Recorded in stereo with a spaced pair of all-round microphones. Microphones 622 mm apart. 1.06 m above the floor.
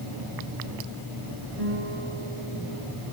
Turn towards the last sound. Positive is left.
turn(degrees=-75)  # may be behind; listen again after turning